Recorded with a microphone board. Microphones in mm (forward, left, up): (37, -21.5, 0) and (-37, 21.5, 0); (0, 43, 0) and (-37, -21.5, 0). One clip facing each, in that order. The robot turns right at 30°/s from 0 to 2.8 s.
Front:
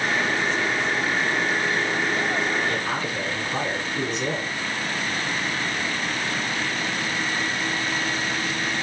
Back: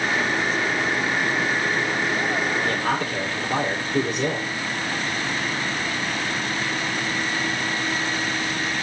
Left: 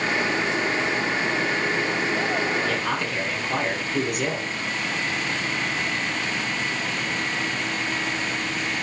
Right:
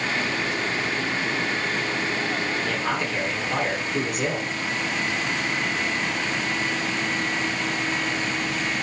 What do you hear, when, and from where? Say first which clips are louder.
2.6 s a man speaking: back 2 dB, even; 145° left, 5.5 m; by 4.5 s 150° left, 5.5 m